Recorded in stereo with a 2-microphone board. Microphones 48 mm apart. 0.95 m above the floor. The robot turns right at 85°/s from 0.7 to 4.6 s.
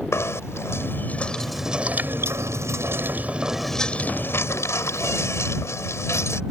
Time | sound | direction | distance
0.1 | knocking | 110° left | ?